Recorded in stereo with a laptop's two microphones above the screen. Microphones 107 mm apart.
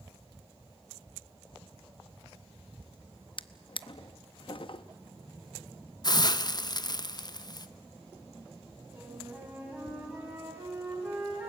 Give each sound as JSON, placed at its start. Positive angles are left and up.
{"t": 3.4, "sound": "a drawer", "side_deg": 55, "distance_m": 0.7}
{"t": 6.0, "sound": "a hiss", "side_deg": 40, "distance_m": 0.6}
{"t": 8.9, "sound": "a flute", "side_deg": -10, "distance_m": 5.5}